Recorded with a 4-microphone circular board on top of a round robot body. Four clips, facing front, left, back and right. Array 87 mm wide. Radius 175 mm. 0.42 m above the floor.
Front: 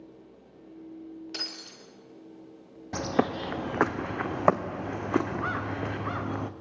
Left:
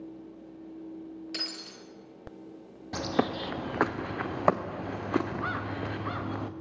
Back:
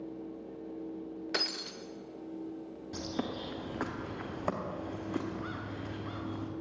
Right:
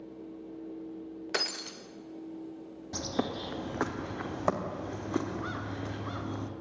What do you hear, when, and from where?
1.3 s breaking glass: 125° right, 0.9 m
2.9 s a bird: 20° left, 1.0 m